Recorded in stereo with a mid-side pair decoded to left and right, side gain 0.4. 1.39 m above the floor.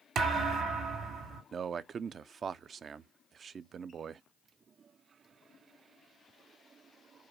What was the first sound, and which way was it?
A thud, 70° right.